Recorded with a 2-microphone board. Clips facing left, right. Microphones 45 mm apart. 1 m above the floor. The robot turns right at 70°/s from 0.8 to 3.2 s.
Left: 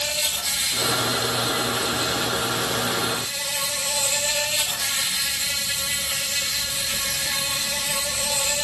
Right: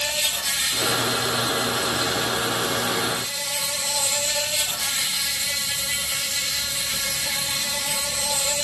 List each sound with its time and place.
0.0 s an insect: 40° right, 8 m; by 8.7 s 125° left, 8 m